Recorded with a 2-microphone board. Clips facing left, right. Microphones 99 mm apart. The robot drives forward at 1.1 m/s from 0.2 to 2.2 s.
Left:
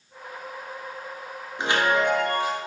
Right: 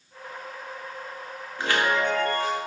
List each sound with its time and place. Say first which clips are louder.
1.6 s a chime: left 2 dB; 20° left (ahead or behind), 0.7 m; by 2.6 s 15° left (ahead or behind), 1.0 m